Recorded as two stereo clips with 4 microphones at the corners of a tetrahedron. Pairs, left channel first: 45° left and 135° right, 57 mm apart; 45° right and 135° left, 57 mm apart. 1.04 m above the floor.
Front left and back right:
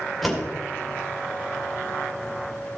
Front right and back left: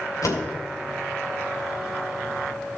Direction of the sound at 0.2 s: 45° right.